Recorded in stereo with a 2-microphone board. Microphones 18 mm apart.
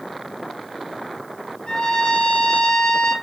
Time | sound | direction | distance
1.7 | a trumpet | 70° left (ahead or behind) | 4.5 m